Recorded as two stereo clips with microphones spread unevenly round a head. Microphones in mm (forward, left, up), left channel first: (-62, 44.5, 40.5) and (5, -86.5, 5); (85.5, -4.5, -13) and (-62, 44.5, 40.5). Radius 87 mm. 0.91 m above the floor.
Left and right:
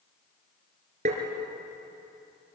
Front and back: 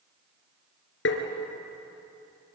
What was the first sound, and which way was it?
Tapping, 5° right.